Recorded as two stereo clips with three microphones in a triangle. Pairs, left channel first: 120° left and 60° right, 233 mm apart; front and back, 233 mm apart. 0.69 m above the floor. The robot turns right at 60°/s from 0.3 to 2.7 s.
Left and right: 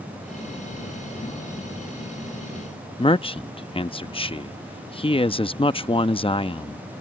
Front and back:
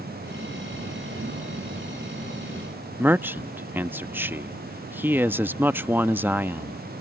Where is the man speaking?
115° left.